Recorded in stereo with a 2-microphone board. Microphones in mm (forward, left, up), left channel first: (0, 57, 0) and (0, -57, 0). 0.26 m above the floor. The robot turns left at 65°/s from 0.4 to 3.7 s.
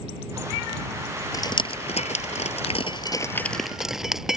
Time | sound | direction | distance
1.3 | dripping | 30° left (ahead or behind) | ?